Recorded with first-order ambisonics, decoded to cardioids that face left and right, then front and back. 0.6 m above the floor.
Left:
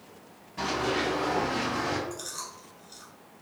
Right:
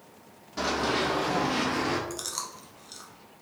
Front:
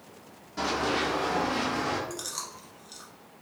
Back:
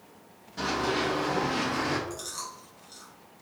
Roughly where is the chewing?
Right.